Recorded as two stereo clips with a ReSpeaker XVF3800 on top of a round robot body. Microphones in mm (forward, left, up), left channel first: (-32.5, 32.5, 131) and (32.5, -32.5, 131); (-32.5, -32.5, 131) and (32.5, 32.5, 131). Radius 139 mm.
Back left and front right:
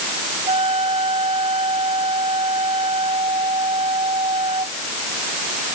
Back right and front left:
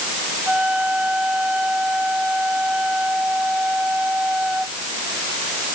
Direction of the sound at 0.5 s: 35° right.